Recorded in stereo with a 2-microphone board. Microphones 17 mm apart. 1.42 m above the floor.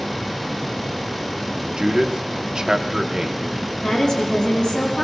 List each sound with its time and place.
1.8 s a man speaking: 45° right (ahead or behind), 0.9 m
3.8 s a woman speaking: 55° left (ahead or behind), 6 m